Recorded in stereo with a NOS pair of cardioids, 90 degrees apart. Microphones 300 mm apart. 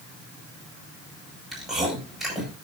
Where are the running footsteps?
No running footsteps in this recording.